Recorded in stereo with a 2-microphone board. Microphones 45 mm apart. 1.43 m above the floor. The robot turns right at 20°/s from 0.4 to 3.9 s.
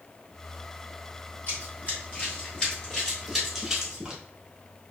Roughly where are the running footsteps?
Left.